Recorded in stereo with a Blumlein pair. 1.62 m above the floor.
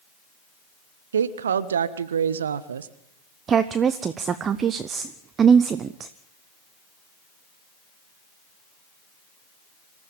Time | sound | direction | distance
1.1 | a woman speaking | 65° right | 1.3 m
3.5 | a woman speaking | 25° right | 0.8 m